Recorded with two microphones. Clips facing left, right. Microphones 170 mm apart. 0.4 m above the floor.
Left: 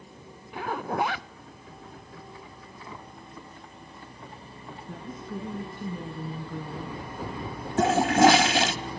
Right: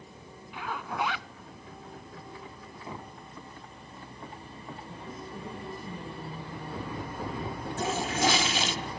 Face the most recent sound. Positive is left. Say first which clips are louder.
# left 10 dB
turn(degrees=70)  # may be behind; listen again after turning